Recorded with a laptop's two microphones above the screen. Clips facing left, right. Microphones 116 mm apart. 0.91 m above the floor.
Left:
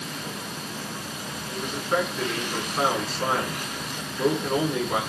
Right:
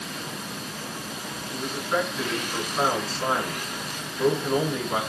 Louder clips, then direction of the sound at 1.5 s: Left 1 dB; 5° left (ahead or behind).